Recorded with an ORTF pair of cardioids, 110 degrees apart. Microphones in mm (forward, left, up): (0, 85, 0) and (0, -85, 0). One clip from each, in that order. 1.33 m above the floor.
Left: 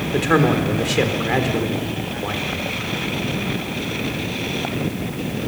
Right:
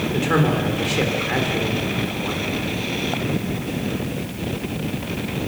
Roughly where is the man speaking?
Ahead left.